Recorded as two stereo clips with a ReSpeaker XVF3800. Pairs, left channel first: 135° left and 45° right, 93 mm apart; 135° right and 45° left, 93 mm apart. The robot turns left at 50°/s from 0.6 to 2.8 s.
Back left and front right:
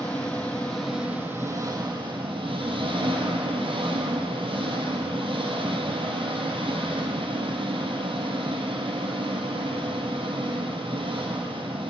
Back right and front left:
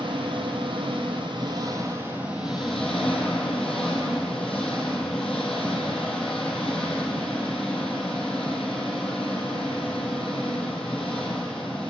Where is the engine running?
60° left, 2.5 m; by 11.9 s 50° right, 2.5 m.